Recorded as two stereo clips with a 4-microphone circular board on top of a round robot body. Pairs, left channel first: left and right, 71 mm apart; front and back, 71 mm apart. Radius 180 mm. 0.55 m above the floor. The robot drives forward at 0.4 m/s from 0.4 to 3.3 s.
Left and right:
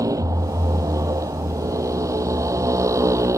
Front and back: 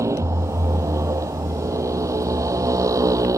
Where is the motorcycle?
130° right; by 3.4 s 135° right.